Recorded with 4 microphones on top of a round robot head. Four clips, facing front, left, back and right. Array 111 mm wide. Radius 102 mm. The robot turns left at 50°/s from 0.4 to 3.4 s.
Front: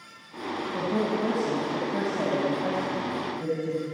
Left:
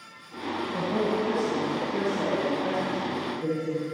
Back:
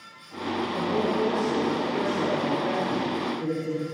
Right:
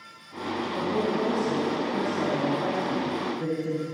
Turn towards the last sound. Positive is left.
turn(degrees=-75)